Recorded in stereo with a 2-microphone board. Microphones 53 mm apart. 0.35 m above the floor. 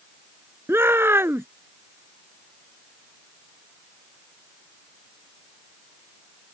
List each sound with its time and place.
0.7 s a shout: 50° right (ahead or behind)